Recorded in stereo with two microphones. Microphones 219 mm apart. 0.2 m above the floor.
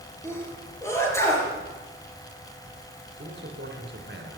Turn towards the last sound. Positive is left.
turn(degrees=-55)  # may be behind; listen again after turning